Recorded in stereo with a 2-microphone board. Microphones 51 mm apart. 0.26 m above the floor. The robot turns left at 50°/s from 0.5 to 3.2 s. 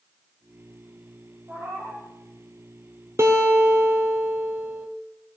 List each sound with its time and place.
1.5 s a cat meowing: 45° right, 3 m; by 2.1 s 80° right, 3 m
3.2 s a guitar: 60° right (ahead or behind), 1.6 m; by 4.9 s 65° right (ahead or behind), 1.6 m